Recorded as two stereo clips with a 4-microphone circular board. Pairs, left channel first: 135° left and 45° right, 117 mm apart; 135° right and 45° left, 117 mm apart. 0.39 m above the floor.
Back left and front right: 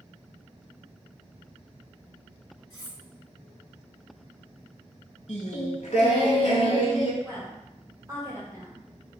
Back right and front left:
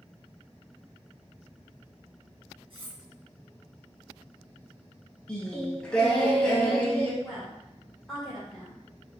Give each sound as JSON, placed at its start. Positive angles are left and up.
{"t": 2.7, "sound": "cutlery clinking", "azimuth_deg": 80, "distance_m": 1.8}
{"t": 5.3, "sound": "singing", "azimuth_deg": 145, "distance_m": 0.7}
{"t": 7.2, "sound": "a woman speaking", "azimuth_deg": -45, "distance_m": 1.2}